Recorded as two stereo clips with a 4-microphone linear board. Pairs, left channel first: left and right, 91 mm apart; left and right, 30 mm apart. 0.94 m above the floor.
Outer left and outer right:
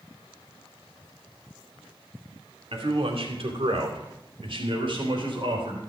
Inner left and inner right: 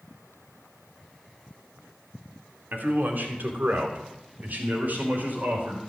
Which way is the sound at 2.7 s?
80° right.